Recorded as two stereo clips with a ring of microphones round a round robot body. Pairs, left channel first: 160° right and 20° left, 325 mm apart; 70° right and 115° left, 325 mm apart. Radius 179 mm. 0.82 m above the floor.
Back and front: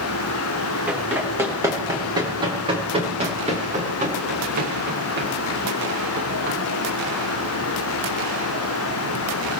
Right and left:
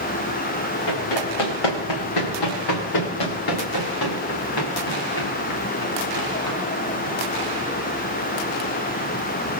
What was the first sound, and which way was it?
Running footsteps, 65° right.